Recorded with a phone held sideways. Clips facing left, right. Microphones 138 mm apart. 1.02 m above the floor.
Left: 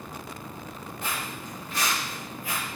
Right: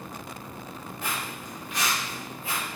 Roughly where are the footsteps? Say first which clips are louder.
Even; centre.